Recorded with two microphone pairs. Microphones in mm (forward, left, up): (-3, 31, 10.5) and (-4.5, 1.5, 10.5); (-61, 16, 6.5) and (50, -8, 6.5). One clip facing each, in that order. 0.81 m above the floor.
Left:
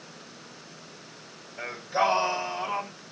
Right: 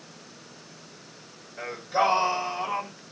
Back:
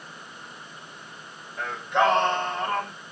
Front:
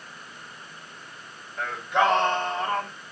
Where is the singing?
95° right, 1.6 m.